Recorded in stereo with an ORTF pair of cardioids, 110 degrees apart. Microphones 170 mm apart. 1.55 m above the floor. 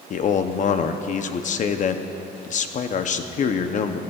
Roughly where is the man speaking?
Ahead left.